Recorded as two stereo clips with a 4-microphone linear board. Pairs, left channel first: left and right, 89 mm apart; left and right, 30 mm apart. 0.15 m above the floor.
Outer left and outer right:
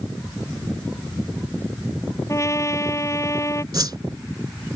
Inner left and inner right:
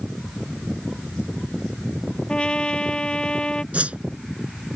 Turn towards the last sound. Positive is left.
turn(degrees=-50)  # may be behind; listen again after turning